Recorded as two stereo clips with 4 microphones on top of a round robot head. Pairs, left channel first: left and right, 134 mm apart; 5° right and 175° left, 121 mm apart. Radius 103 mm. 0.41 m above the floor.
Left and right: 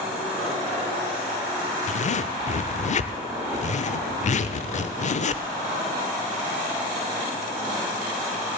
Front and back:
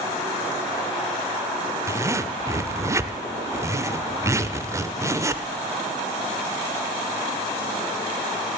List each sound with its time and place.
1.9 s a zipper: 110° left, 0.7 m